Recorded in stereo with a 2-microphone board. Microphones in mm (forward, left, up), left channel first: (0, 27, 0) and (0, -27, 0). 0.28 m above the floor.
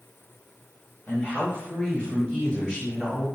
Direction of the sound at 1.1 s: 35° left (ahead or behind).